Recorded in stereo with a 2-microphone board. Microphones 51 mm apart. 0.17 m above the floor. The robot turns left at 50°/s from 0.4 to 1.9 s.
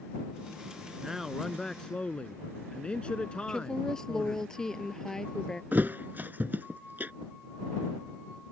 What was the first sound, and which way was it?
A man speaking, 165° right.